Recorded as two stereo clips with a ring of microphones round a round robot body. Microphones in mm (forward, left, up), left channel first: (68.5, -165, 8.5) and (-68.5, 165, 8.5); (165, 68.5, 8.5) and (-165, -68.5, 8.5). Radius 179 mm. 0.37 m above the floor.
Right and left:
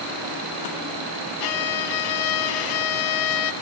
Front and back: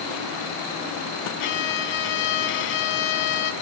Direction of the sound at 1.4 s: 40° right.